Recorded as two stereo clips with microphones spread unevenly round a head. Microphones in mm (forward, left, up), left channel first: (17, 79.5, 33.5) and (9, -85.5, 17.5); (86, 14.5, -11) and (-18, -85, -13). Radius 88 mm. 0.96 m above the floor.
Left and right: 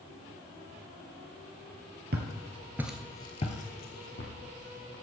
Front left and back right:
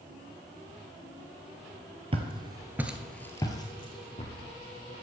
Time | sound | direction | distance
2.1 | footsteps | 105° right | 1.3 m